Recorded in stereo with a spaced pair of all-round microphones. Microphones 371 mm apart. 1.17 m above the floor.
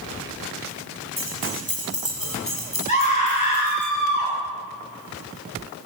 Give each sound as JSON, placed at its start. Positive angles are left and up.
{"t": 1.2, "sound": "keys jangling", "side_deg": 20, "distance_m": 7.0}
{"t": 2.9, "sound": "a scream", "side_deg": 20, "distance_m": 7.0}